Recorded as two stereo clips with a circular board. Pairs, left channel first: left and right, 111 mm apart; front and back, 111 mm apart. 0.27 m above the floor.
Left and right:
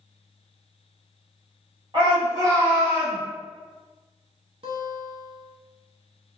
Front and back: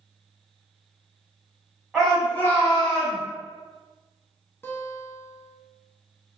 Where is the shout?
90° right, 1.9 m; by 3.2 s straight ahead, 1.8 m.